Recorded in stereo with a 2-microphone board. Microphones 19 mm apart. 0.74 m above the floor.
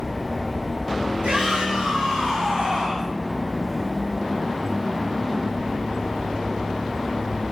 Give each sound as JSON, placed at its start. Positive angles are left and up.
{"t": 1.2, "sound": "a shout", "side_deg": -80, "distance_m": 7.0}